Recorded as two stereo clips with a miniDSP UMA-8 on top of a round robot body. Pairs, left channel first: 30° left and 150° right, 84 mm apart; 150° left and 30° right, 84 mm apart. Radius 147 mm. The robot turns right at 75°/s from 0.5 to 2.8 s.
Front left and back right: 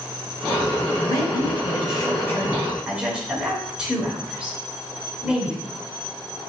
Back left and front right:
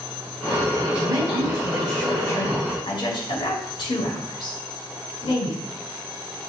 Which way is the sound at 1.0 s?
Straight ahead.